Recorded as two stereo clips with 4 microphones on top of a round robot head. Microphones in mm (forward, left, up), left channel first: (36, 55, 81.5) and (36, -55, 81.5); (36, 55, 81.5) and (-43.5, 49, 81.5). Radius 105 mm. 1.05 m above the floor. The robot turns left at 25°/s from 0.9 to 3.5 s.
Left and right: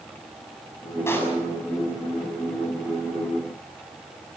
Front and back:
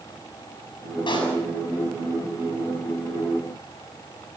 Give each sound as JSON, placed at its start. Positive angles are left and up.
{"t": 1.1, "sound": "a pop", "azimuth_deg": 25, "distance_m": 7.0}